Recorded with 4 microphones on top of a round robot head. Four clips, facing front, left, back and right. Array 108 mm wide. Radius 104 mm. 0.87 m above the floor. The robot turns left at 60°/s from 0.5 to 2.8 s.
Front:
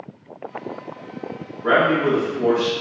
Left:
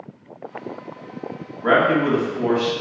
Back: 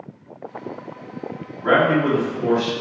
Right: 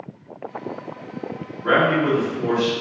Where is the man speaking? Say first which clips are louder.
Left 1 dB, even; 115° left, 1.4 m; by 2.7 s 50° left, 1.4 m.